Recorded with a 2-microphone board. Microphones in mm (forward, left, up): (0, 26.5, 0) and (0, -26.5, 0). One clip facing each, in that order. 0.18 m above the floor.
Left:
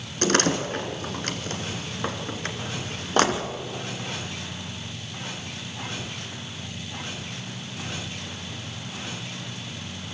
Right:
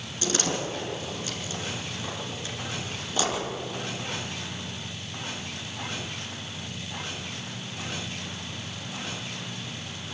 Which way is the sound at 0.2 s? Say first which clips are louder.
Left 6 dB; 55° left (ahead or behind).